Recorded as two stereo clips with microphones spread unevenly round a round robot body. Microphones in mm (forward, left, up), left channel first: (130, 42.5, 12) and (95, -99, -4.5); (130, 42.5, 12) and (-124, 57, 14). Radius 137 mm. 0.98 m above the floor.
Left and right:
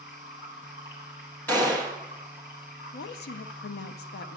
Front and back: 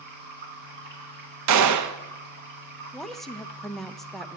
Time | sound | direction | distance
0.0 | running water | 125° left | 1.9 m
1.5 | a gunshot | 160° left | 0.7 m
2.9 | a woman speaking | 85° left | 0.5 m